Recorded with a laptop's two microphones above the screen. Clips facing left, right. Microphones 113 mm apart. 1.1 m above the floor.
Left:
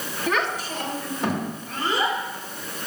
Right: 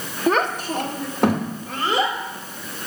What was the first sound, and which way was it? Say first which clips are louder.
A child speaking: right 6 dB; 35° right (ahead or behind).